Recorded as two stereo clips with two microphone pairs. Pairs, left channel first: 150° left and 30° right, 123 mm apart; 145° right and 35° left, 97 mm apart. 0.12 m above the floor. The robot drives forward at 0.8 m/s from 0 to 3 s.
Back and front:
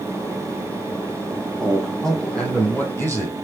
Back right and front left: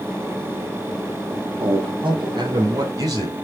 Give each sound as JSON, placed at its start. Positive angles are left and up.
{"t": 1.6, "sound": "a man speaking", "azimuth_deg": 60, "distance_m": 3.5}